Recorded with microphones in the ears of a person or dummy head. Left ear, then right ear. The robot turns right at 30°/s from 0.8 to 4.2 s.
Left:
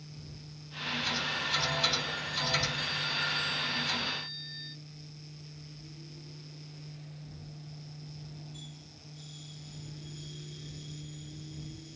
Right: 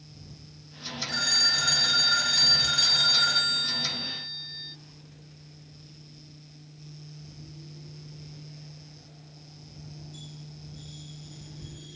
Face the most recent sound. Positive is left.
turn(degrees=-10)